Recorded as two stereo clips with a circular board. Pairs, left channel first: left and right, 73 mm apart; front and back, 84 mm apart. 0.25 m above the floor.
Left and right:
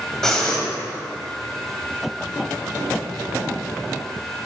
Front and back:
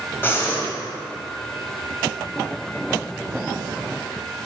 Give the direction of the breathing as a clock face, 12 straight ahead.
11 o'clock.